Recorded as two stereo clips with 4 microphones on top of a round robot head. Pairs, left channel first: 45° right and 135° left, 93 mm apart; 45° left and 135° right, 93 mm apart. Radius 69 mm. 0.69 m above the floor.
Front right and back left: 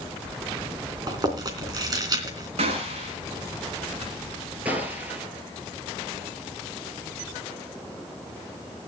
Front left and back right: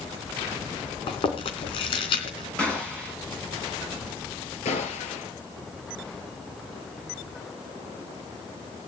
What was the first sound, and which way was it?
Chewing, 85° left.